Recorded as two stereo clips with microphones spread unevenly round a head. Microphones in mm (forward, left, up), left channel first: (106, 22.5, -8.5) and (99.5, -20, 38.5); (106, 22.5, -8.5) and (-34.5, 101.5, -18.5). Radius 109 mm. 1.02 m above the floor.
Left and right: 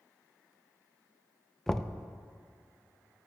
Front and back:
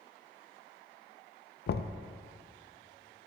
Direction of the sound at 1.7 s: 5° right.